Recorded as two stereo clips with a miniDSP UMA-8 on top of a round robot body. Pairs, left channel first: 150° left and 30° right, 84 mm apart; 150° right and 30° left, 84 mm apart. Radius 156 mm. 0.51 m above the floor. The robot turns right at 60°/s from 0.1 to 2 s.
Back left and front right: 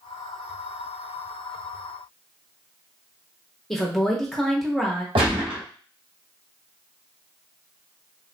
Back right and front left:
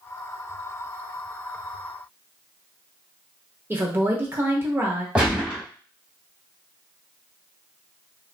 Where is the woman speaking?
65° left, 1.0 m.